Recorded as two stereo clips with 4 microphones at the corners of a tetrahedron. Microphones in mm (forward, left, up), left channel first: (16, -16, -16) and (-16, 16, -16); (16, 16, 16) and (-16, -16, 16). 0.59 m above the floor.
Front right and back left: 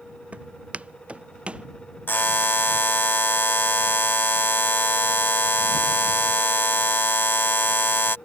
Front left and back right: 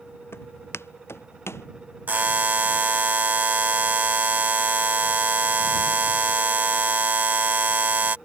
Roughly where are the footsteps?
Left.